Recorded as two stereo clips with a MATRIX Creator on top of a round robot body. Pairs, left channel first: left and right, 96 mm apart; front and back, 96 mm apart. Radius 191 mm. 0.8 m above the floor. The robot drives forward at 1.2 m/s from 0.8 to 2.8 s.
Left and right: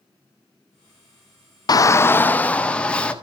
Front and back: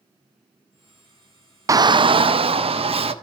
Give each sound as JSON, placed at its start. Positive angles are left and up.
{"t": 1.7, "sound": "a shout", "azimuth_deg": 125, "distance_m": 0.6}